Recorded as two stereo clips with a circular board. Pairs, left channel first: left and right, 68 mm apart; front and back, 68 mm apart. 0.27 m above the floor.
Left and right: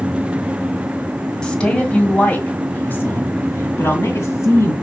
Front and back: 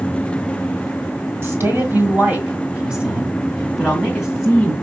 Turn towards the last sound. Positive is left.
turn(degrees=85)